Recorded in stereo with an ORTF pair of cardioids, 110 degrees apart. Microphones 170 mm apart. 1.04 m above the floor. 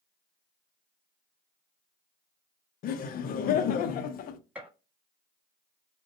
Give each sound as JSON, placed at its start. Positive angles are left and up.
{"t": 2.8, "sound": "laughter", "azimuth_deg": 60, "distance_m": 0.5}
{"t": 4.5, "sound": "a gunshot", "azimuth_deg": -10, "distance_m": 1.2}